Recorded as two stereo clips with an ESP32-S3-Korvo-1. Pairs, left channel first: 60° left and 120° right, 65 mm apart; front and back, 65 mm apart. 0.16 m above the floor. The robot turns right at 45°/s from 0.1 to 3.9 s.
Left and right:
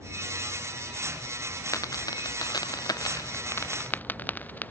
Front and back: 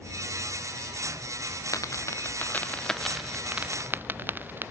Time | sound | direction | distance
1.7 | a dropped coin | 25° left | ?